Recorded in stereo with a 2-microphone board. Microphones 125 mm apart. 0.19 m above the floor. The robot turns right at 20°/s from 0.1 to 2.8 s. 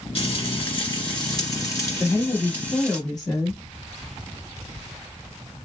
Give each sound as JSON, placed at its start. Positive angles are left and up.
{"t": 0.1, "sound": "frying", "azimuth_deg": 120, "distance_m": 2.0}
{"t": 2.0, "sound": "a woman speaking", "side_deg": 25, "distance_m": 1.1}